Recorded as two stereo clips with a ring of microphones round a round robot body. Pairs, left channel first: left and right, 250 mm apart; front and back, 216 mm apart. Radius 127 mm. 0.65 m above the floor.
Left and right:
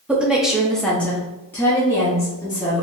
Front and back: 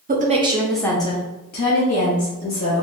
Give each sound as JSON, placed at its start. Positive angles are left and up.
{"t": 0.1, "sound": "a woman speaking", "azimuth_deg": -170, "distance_m": 0.8}